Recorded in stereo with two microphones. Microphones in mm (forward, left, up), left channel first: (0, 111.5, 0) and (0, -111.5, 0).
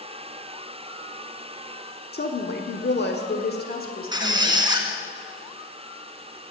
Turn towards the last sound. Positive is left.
turn(degrees=-20)  # may be behind; listen again after turning